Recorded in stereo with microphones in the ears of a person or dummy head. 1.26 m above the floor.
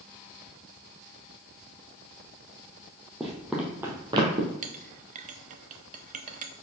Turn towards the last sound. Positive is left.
turn(degrees=-35)  # may be behind; listen again after turning